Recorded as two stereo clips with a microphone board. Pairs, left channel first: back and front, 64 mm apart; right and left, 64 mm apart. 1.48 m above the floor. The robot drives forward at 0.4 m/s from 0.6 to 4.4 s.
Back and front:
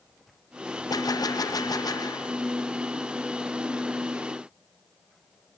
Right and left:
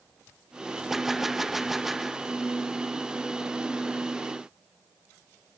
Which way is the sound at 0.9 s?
175° left.